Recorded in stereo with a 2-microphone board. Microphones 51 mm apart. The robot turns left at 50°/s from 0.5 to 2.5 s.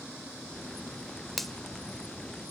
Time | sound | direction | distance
1.4 | a finger snap | centre (ahead or behind) | 0.9 m